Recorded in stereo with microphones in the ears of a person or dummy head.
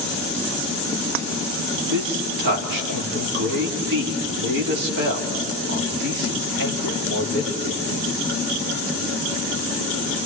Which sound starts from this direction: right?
A man speaking, at 1.9 s.